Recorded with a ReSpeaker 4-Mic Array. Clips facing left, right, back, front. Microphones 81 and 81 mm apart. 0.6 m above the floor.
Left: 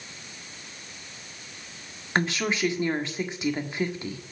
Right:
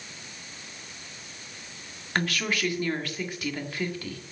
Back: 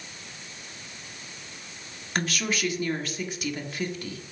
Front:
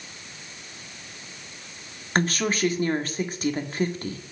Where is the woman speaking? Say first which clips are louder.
Left 2 dB, front 5 dB; 30° left, 1.5 m.